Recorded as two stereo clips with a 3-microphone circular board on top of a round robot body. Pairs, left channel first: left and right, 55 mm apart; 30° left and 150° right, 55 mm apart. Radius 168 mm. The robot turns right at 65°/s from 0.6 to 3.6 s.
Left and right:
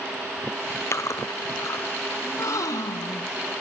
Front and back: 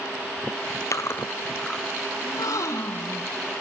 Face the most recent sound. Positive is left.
turn(degrees=125)